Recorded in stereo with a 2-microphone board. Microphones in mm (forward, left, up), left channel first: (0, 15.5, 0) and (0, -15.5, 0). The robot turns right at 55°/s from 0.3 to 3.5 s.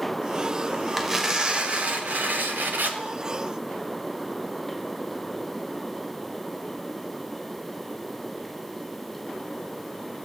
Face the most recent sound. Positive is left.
turn(degrees=-35)